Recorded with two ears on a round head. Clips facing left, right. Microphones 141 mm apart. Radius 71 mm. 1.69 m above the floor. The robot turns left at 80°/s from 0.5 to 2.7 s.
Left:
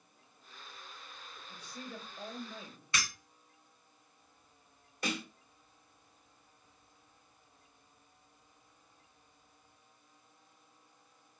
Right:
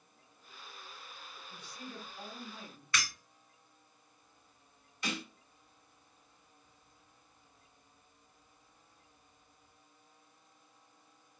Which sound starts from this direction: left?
A snare drum, at 5.0 s.